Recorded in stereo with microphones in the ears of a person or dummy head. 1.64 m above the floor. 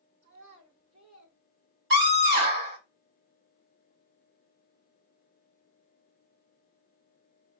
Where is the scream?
85° right, 3 m.